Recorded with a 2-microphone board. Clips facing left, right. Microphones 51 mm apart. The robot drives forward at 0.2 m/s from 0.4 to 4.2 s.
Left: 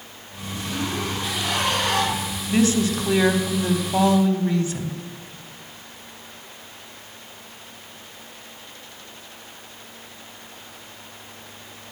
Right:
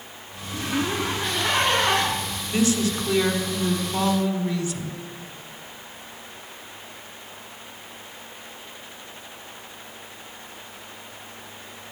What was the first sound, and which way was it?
A zipper, 30° right (ahead or behind).